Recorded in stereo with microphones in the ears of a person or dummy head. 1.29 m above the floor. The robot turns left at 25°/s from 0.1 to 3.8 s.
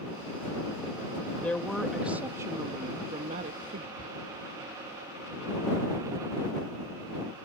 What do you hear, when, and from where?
1.4 s a woman speaking: 10° left; by 3.9 s 50° right
4.0 s a shout: 80° right